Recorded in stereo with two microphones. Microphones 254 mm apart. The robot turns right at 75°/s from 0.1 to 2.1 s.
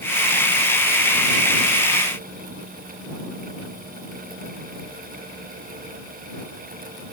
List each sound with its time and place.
Only background noise.